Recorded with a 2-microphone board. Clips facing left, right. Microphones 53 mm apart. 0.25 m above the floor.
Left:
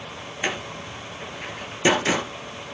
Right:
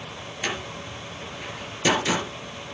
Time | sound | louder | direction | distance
0.4 | a door slam | left 2 dB | 20° left (ahead or behind) | 3 m